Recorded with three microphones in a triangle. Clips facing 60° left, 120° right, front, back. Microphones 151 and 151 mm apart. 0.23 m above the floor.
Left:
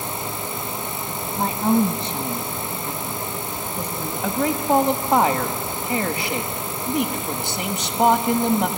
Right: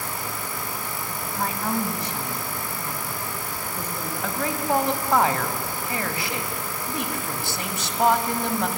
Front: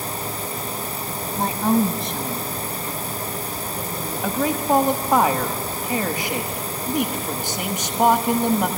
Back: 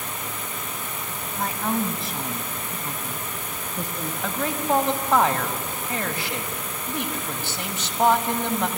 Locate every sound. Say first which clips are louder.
1.4 s a woman speaking: left 8 dB, front 6 dB; 15° left, 1.1 m; by 4.1 s 140° left, 2.5 m
4.2 s a man speaking: left 5 dB, front 4 dB; 50° left, 1.1 m